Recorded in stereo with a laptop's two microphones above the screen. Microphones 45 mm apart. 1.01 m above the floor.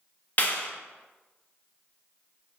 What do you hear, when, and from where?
0.4 s a clap: 40° left (ahead or behind), 0.9 m